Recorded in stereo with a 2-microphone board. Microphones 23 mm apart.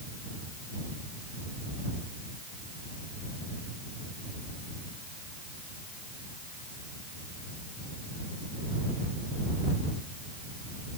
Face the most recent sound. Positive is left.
No sound to turn to.